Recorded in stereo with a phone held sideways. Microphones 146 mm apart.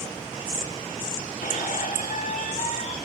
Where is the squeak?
65° left (ahead or behind), 2.5 m.